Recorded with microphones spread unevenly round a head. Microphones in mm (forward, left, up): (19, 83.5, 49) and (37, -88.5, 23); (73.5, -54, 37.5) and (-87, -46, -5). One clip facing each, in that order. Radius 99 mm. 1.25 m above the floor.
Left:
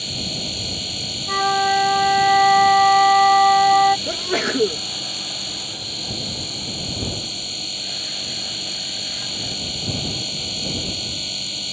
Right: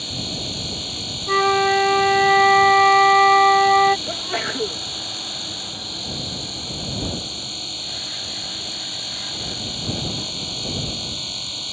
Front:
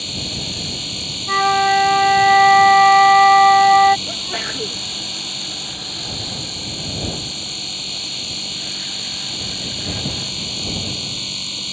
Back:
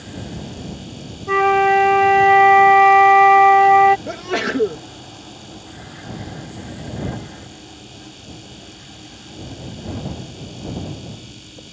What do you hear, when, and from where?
0.0 s a machine running: 30° left
1.3 s a flute: 135° right
4.1 s a sneeze: 145° left